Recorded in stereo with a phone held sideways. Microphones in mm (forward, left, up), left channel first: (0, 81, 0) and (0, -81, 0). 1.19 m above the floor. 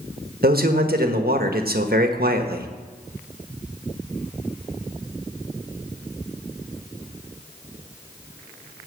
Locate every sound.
0.4 s a man speaking: 70° right (ahead or behind), 1.3 m